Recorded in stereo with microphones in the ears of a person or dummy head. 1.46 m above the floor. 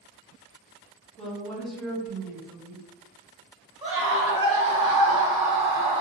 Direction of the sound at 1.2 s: Centre (ahead or behind).